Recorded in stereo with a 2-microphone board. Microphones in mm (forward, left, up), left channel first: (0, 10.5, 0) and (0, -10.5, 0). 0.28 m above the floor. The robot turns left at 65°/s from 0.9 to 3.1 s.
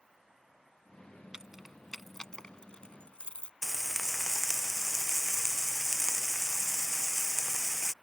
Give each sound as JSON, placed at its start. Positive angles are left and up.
{"t": 1.3, "sound": "keys jangling", "side_deg": -30}
{"t": 3.6, "sound": "frying", "side_deg": 0}